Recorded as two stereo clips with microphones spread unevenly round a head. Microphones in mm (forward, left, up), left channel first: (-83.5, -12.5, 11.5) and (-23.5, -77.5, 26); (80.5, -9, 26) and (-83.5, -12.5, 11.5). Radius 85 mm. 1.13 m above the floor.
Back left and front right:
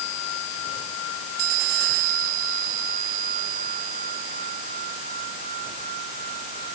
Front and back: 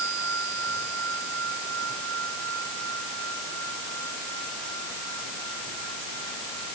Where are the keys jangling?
I don't hear keys jangling.